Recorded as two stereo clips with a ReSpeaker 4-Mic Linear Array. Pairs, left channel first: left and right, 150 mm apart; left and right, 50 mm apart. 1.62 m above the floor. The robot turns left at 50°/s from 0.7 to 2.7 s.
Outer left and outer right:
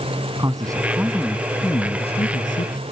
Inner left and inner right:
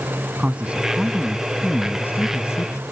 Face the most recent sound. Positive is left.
turn(degrees=105)